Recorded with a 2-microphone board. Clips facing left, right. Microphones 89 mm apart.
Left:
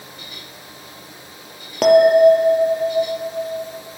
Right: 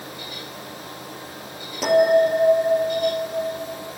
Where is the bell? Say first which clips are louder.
Left 6 dB; 65° left (ahead or behind), 1.3 m.